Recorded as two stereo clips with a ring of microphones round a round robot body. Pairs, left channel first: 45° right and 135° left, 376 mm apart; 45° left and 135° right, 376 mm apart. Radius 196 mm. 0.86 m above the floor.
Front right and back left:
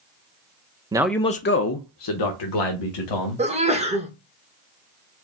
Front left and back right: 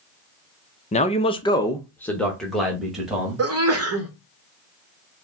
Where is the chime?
I don't hear a chime.